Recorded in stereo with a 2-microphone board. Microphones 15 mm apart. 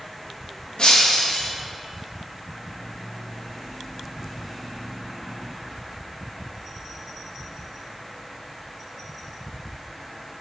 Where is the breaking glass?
60° left (ahead or behind), 4 m.